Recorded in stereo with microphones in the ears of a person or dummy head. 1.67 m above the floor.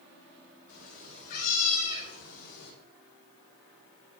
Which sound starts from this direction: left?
A cat meowing, at 0.7 s.